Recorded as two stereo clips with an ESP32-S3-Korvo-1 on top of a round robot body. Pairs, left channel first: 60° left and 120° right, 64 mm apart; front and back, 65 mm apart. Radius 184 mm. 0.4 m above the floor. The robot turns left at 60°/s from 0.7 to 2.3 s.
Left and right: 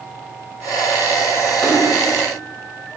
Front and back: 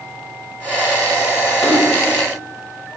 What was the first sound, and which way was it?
A splash, 15° right.